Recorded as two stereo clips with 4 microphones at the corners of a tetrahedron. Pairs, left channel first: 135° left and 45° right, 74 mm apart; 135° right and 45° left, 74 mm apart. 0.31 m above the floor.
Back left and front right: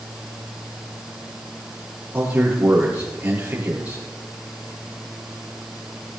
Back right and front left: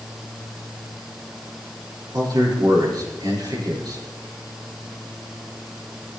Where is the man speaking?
20° left, 5.5 m.